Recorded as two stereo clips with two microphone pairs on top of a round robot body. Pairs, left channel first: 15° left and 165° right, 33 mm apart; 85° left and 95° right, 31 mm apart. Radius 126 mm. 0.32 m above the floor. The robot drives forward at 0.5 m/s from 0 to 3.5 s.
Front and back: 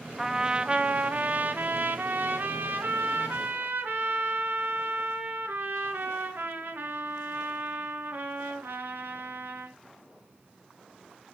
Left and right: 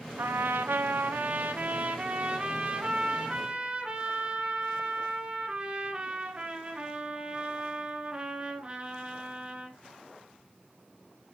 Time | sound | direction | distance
0.2 | a trumpet | 90° right | 0.6 m